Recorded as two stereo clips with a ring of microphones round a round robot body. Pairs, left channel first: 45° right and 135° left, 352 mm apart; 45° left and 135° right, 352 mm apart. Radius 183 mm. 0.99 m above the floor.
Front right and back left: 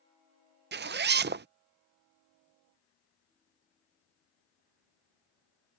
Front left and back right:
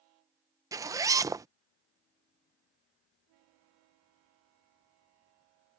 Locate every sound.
0.7 s a zipper: 155° left